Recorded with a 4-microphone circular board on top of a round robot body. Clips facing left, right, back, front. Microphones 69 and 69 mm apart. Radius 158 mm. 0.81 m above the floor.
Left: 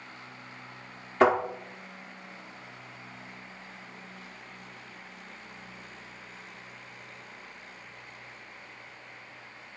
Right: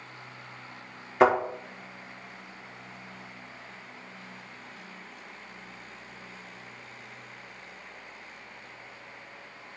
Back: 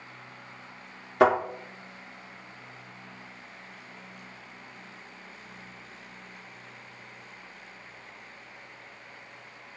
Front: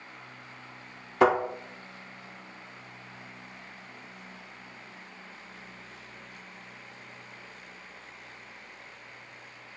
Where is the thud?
165° right, 1.5 m.